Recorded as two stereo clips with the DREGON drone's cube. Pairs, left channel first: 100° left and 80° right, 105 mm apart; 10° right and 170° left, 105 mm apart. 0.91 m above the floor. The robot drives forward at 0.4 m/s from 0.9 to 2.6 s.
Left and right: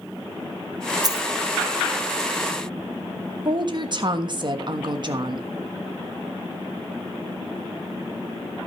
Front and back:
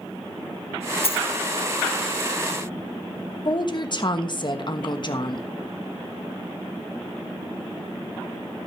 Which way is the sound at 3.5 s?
45° right.